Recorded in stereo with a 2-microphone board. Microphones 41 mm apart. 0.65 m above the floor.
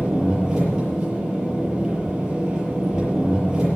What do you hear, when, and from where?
0.0 s an engine running: 20° right (ahead or behind), 7 m